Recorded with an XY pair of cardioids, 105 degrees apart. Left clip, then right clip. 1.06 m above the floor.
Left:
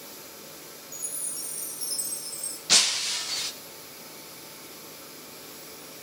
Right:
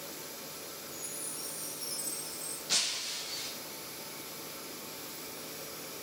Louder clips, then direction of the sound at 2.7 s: Left 10 dB; 65° left.